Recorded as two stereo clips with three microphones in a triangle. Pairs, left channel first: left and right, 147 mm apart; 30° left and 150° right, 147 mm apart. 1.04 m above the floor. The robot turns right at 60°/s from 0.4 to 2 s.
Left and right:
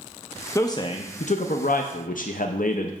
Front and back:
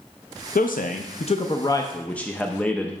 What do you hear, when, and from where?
0.6 s a man speaking: 20° left, 0.5 m; by 2.9 s 110° left, 0.5 m